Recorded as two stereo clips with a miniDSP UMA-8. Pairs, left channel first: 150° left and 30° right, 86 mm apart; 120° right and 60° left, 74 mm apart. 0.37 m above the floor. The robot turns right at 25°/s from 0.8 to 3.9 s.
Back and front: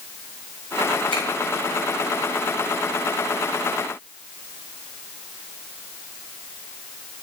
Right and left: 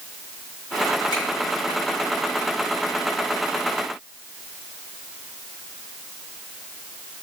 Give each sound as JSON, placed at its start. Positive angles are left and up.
{"t": 1.1, "sound": "a finger snap", "azimuth_deg": -135, "distance_m": 5.0}